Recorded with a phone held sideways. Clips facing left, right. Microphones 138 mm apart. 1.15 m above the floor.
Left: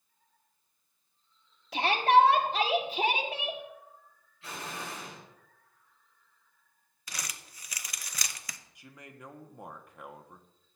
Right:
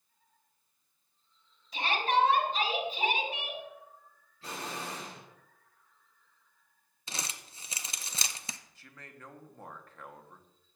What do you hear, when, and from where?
1.7 s a shout: 70° left (ahead or behind), 1.6 m
4.4 s an explosion: 40° right (ahead or behind), 4.5 m
7.1 s crumpling: 25° right (ahead or behind), 0.5 m
8.8 s a man speaking: 15° left (ahead or behind), 0.8 m